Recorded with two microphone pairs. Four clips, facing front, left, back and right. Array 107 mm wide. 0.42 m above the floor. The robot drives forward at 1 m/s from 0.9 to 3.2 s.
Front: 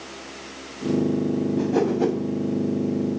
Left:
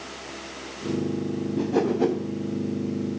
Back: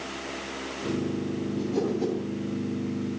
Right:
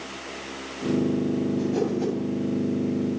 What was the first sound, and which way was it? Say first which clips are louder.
A whoosh: left 2 dB, front 5 dB; 30° left.